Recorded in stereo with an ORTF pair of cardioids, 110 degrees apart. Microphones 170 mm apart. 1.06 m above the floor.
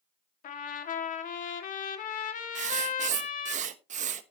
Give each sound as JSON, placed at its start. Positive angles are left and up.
{"t": 0.4, "sound": "a trumpet", "azimuth_deg": 55, "distance_m": 1.8}
{"t": 2.5, "sound": "writing", "azimuth_deg": -50, "distance_m": 1.1}